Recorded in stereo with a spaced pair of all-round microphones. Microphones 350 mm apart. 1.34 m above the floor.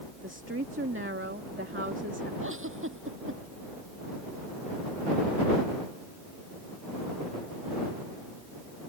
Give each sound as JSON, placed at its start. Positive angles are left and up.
{"t": 0.2, "sound": "a woman speaking", "side_deg": -35}
{"t": 2.4, "sound": "a giggle", "side_deg": -35}